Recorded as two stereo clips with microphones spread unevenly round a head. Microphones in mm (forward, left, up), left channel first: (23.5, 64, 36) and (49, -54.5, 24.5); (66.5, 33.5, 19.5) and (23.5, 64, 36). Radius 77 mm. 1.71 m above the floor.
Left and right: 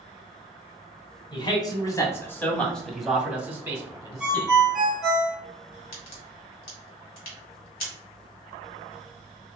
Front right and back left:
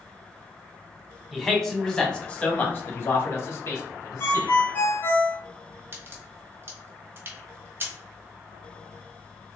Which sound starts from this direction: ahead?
A ringtone, at 4.2 s.